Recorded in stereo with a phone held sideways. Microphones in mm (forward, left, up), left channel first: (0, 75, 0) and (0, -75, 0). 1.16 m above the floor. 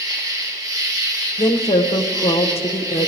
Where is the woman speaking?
40° left (ahead or behind), 0.8 m.